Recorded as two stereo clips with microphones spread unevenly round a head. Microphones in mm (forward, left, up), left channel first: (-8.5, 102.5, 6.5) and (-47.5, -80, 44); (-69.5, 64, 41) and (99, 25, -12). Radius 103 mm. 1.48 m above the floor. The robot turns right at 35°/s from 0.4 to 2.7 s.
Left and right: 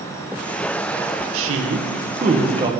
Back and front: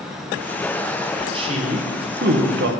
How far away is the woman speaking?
About 1.6 m.